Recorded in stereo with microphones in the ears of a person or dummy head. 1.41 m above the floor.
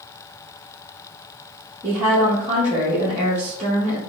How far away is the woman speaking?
About 1.2 m.